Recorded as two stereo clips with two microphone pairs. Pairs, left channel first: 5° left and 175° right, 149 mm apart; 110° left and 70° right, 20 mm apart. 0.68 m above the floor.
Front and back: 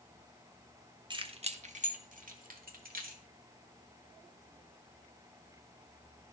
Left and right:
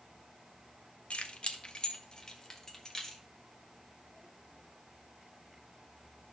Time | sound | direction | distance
1.1 | keys jangling | 125° left | 0.9 m